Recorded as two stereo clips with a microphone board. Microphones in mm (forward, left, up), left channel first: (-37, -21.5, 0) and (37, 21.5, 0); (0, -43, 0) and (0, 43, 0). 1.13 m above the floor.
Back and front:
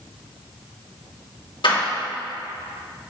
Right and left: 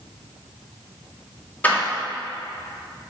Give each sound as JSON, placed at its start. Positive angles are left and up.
{"t": 1.6, "sound": "a door slam", "azimuth_deg": -160, "distance_m": 1.8}